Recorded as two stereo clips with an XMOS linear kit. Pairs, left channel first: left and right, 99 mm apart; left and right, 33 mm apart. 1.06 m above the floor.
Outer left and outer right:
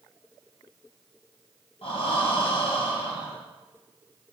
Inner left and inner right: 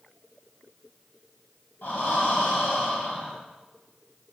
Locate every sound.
1.8 s breathing: 70° left (ahead or behind), 3.5 m